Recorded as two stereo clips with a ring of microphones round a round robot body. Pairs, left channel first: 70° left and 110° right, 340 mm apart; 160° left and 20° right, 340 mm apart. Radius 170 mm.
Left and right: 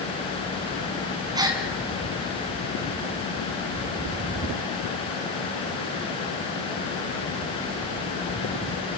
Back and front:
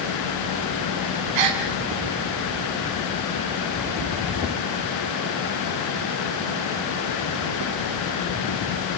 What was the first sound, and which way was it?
A gasp, 35° right.